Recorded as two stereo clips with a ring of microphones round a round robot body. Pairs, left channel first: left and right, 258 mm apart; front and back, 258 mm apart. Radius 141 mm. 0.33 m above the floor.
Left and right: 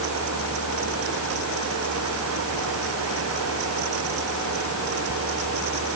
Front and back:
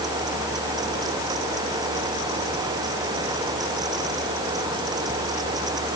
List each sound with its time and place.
Only background noise.